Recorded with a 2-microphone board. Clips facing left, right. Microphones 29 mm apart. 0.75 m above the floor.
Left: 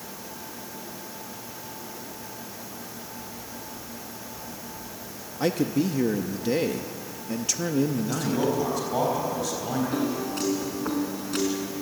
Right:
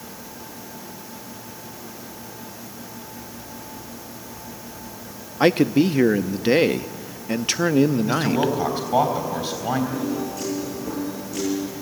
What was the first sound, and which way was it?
A man speaking, 50° right (ahead or behind).